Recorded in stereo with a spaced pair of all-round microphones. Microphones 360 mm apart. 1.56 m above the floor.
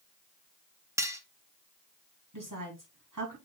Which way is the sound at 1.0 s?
10° right (ahead or behind).